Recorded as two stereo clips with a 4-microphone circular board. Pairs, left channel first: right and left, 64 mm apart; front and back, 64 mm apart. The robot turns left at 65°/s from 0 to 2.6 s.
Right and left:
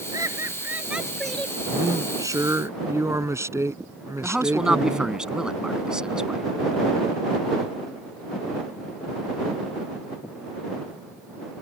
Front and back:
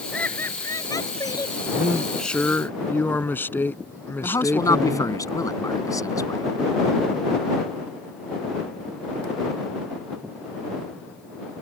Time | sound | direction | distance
0.1 | laughter | 70° left | ?
1.7 | a man speaking | 115° left | ?
4.2 | a man speaking | 15° left | ?